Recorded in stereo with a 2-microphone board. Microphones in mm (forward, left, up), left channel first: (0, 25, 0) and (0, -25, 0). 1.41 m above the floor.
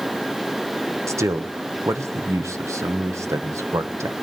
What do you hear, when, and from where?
1.1 s a man speaking: 75° right (ahead or behind), 1.3 m